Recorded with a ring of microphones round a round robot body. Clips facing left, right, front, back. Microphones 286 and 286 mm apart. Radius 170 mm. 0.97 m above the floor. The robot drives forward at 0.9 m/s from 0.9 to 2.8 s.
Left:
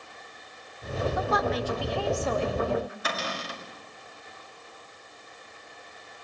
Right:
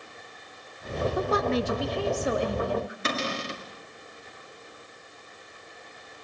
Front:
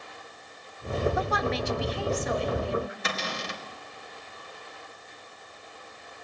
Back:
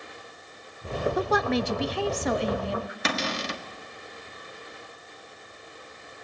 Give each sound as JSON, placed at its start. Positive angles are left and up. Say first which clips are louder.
{"t": 1.2, "sound": "a woman speaking", "louder": "right 4 dB, back 4 dB", "azimuth_deg": -135, "distance_m": 0.8}
{"t": 3.0, "sound": "a cupboard door", "louder": "right 4 dB, back 5 dB", "azimuth_deg": -155, "distance_m": 1.6}